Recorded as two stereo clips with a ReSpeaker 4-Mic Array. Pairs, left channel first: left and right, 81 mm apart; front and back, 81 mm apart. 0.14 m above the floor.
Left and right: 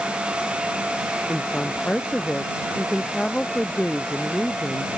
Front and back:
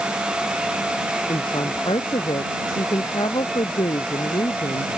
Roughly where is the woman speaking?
Ahead.